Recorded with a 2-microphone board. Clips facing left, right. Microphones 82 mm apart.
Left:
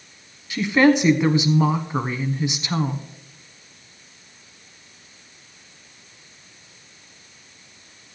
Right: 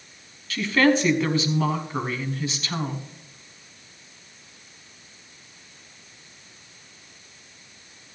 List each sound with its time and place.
0.5 s a woman speaking: 20° left (ahead or behind), 1.1 m